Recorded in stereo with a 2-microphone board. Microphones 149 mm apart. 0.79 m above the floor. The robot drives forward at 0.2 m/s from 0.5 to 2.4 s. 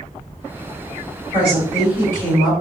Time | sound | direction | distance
1.3 | a woman speaking | 35° right (ahead or behind) | 1.5 m